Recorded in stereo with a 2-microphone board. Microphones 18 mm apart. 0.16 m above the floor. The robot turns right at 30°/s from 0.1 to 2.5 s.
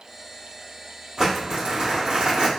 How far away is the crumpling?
About 1.8 m.